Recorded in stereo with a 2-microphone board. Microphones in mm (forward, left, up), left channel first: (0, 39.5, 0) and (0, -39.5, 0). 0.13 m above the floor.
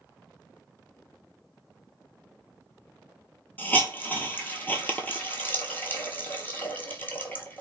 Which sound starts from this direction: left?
A hiss, at 3.6 s.